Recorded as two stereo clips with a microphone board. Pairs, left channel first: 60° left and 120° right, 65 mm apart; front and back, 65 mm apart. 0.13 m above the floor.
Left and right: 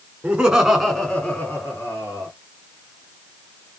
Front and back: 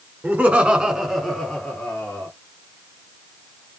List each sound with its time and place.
0.2 s laughter: 170° right, 1.3 m; by 2.3 s 60° left, 1.7 m